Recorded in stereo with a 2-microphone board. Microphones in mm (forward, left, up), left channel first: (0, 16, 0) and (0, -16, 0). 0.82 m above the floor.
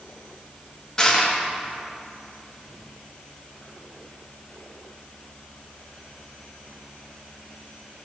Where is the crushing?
20° left (ahead or behind), 1.2 m.